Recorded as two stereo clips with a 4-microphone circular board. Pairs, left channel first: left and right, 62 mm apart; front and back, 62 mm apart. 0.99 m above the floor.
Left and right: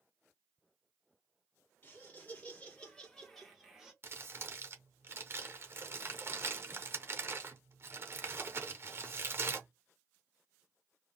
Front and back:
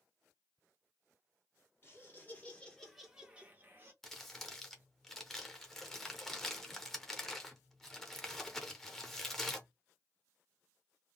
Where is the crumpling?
85° right, 0.8 m.